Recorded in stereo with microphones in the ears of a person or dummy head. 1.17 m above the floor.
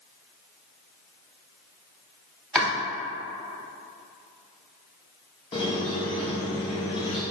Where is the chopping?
Centre (ahead or behind), 0.8 m.